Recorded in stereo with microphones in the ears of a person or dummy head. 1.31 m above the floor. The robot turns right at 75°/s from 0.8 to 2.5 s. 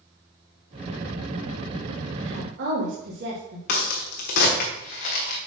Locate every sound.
2.2 s a woman speaking: 85° right, 2.5 m; by 3.6 s 65° right (ahead or behind), 2.5 m
3.7 s a crack: 50° left (ahead or behind), 1.3 m